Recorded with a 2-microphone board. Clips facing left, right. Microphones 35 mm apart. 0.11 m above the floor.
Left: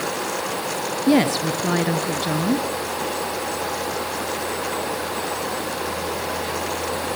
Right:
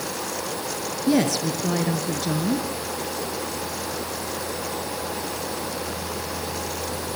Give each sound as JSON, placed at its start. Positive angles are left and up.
{"t": 1.1, "sound": "a woman speaking", "side_deg": 35, "distance_m": 1.7}